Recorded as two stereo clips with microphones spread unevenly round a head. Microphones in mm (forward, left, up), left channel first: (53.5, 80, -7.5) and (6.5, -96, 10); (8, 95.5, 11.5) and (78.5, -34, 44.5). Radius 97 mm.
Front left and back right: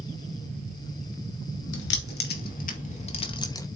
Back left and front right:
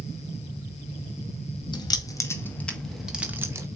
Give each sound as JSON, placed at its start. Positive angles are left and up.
{"t": 1.7, "sound": "keys jangling", "azimuth_deg": 55, "distance_m": 2.5}